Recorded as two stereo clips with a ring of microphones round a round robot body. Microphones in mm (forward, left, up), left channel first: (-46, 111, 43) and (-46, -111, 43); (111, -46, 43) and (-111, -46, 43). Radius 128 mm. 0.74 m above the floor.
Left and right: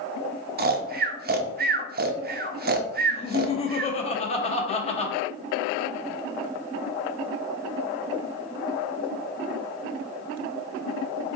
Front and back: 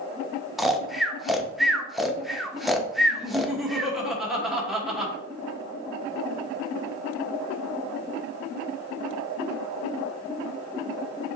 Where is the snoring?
90° right, 0.6 m.